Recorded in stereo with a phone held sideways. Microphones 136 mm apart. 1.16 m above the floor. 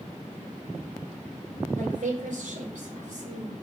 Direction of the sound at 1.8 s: 80° right.